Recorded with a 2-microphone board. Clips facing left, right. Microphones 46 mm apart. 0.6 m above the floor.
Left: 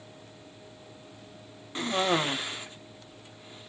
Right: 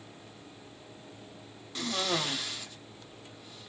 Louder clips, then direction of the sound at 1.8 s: Left 5 dB; 25° left (ahead or behind).